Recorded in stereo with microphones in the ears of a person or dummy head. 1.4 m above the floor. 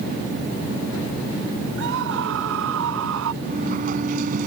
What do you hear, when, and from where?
1.8 s a scream: 70° right (ahead or behind); by 3.3 s 80° right
3.4 s a sliding door: 45° right (ahead or behind)